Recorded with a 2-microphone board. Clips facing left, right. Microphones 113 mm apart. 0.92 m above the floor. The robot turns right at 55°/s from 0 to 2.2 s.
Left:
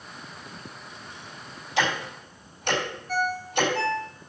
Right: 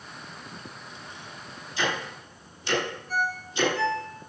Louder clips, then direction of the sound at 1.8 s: Left 3 dB; 80° left.